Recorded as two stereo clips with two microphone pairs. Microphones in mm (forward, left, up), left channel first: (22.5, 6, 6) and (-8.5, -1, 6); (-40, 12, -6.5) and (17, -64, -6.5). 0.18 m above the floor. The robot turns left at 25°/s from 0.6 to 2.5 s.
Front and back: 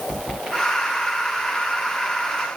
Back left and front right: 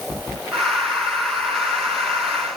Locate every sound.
Only background noise.